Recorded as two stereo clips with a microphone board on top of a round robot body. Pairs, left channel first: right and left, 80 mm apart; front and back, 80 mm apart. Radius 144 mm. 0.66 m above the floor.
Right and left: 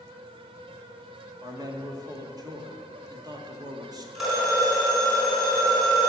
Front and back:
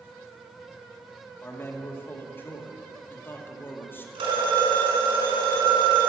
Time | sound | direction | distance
1.4 | a man speaking | 60° left | 2 m
4.2 | a phone ringing | straight behind | 4.5 m